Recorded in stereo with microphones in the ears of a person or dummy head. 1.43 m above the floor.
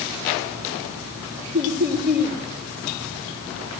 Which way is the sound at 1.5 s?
15° right (ahead or behind).